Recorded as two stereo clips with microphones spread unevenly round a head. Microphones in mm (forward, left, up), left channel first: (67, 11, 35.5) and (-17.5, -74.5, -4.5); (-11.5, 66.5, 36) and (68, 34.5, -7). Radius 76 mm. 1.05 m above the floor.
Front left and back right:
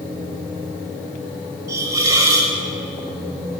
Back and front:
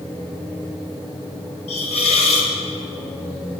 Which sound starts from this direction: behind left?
A hiss, at 1.7 s.